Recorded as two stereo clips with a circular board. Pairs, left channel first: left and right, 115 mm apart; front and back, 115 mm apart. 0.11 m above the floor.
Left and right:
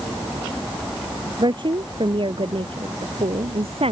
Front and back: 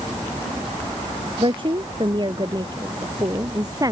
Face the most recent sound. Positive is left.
turn(degrees=-125)